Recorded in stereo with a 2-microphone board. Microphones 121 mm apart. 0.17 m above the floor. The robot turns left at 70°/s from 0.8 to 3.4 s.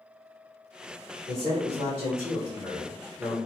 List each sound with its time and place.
1.3 s a man speaking: 75° right, 1.1 m; by 3.4 s 140° left, 1.1 m